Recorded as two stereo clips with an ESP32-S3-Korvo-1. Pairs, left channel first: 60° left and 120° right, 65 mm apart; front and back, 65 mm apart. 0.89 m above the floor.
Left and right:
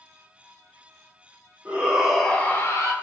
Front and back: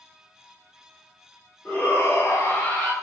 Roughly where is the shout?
Ahead right.